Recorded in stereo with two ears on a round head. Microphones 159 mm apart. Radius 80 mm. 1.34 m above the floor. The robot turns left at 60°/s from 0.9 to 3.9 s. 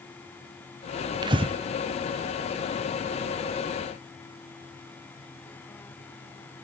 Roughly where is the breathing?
Right.